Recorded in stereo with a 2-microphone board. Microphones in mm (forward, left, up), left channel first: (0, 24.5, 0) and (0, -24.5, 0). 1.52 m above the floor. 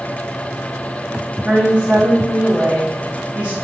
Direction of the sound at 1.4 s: 30° right (ahead or behind).